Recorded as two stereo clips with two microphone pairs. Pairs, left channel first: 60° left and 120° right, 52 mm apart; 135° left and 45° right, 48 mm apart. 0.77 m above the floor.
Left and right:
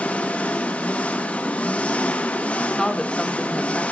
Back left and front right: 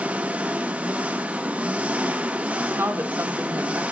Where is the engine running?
10° left, 0.9 m.